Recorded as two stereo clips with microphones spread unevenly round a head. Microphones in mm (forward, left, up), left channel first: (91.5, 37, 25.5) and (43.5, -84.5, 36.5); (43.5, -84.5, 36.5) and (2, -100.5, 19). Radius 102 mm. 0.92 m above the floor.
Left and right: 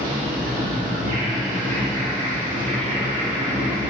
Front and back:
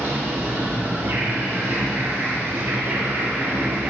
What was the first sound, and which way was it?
An insect, 150° right.